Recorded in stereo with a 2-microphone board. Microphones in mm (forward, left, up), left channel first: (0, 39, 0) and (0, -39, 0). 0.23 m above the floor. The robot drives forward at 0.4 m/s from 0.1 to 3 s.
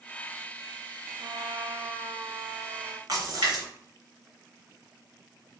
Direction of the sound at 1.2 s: 60° right (ahead or behind).